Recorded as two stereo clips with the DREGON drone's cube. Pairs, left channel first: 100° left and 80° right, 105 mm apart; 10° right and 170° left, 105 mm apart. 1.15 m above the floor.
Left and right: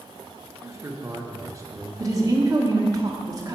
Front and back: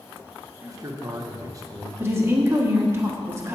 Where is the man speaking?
135° right, 1.2 m.